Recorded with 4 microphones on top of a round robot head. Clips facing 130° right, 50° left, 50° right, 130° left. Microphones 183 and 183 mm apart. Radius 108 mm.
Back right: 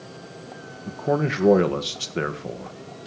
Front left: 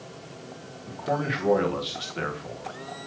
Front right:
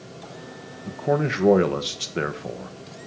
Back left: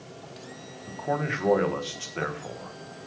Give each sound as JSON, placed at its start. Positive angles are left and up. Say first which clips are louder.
{"t": 0.9, "sound": "a man speaking", "louder": "back right 5 dB, front right 7 dB", "azimuth_deg": -95, "distance_m": 1.7}